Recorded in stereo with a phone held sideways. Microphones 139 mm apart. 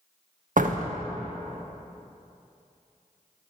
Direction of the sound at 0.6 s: 70° right (ahead or behind).